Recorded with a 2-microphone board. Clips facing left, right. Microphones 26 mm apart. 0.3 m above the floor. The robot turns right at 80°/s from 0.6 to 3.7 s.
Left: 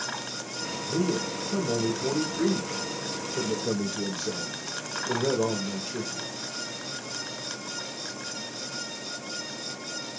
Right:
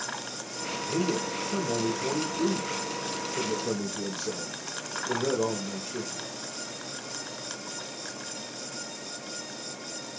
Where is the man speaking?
55° right, 4 m; by 6.3 s 170° left, 4 m.